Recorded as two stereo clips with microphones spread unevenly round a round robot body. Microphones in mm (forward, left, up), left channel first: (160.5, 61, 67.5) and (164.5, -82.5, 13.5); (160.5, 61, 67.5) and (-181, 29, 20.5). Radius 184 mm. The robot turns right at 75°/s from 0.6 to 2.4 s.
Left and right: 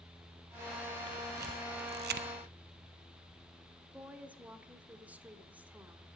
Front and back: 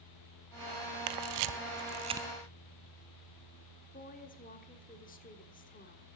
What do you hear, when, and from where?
1.1 s a camera shutter: 175° right, 0.5 m; by 2.3 s 85° right, 0.5 m
3.9 s a woman speaking: 55° right, 1.5 m